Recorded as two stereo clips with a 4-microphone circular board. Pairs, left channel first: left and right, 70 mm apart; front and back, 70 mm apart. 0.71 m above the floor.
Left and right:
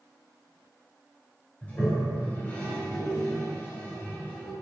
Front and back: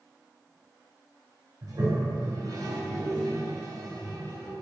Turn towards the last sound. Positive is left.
turn(degrees=150)